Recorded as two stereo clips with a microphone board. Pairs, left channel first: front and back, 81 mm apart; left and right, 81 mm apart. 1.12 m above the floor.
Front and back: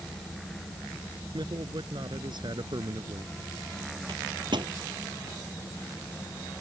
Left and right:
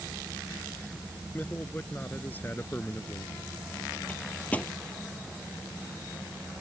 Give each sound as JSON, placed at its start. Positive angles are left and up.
{"t": 1.3, "sound": "a man speaking", "azimuth_deg": 155}
{"t": 4.1, "sound": "a microwave", "azimuth_deg": 160}